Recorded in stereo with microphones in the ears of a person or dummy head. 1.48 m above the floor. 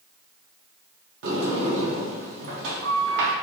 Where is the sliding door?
65° right (ahead or behind), 0.7 m.